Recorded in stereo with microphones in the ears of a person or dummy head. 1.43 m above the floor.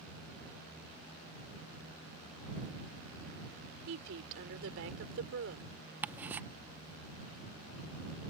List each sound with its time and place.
3.9 s a woman speaking: 75° right (ahead or behind)
6.0 s ticking: 10° right (ahead or behind)